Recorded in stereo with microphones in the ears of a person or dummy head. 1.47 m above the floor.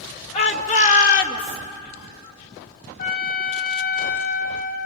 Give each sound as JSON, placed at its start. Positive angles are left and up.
{"t": 0.3, "sound": "a shout", "side_deg": 35, "distance_m": 1.9}
{"t": 3.0, "sound": "a trumpet", "side_deg": 50, "distance_m": 1.0}